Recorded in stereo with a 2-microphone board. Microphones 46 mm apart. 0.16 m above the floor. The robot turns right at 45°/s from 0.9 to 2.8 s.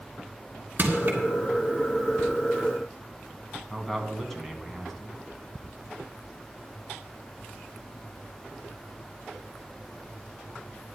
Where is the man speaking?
5° left (ahead or behind), 1.4 m.